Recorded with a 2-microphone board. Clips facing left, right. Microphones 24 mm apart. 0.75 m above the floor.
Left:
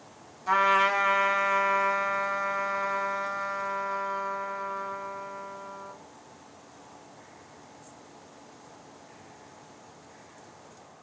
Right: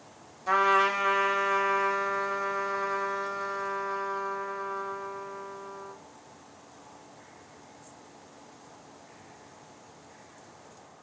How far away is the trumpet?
About 1.2 m.